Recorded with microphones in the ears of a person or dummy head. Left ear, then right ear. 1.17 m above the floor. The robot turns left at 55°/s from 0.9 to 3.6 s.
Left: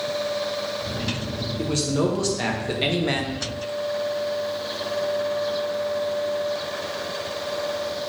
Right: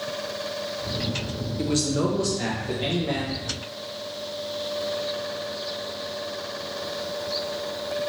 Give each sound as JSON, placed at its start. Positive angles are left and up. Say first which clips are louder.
{"t": 1.6, "sound": "a man speaking", "louder": "left 1 dB", "azimuth_deg": -170, "distance_m": 0.5}